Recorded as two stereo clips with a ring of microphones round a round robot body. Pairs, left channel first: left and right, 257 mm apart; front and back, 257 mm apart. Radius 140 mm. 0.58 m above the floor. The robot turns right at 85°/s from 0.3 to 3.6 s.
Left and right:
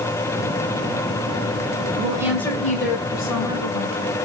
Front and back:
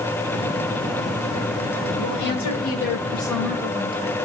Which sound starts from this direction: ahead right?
A woman speaking, at 2.0 s.